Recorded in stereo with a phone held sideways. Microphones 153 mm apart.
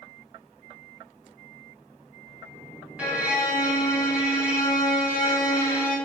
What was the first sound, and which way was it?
A violin, 10° right (ahead or behind).